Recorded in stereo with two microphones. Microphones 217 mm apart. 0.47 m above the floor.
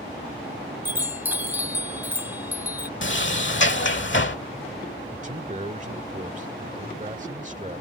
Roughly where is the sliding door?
Left.